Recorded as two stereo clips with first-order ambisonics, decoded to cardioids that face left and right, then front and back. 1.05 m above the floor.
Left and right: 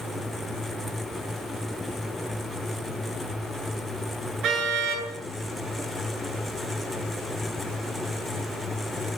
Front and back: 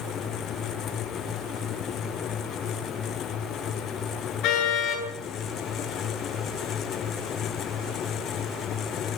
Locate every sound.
4.4 s a car horn: 40° right, 9 m